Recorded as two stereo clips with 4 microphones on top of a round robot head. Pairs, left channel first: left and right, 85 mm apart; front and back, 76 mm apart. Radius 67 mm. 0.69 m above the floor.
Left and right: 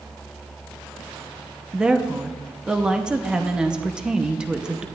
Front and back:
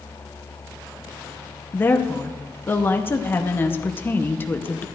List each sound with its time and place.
1.7 s a woman speaking: 20° right, 0.8 m